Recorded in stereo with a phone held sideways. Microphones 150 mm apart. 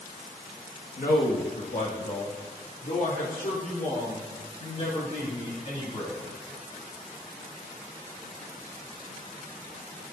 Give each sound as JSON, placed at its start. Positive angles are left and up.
{"t": 1.0, "sound": "a man speaking", "side_deg": 75, "distance_m": 1.7}